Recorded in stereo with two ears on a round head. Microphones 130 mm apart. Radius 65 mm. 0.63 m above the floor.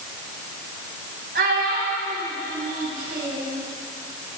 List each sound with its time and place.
1.4 s a child speaking: 80° right, 3.5 m